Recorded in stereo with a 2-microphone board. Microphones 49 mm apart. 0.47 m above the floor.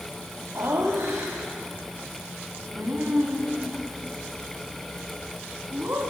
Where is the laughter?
70° right (ahead or behind), 3 m; by 6.0 s 50° right (ahead or behind), 5 m.